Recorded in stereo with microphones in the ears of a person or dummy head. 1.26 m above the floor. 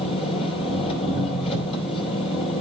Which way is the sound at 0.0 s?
30° left (ahead or behind).